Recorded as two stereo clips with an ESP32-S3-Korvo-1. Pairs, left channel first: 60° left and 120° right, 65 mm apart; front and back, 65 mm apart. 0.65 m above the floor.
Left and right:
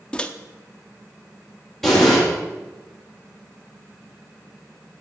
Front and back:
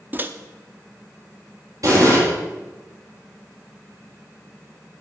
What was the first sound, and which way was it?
A microwave, 135° left.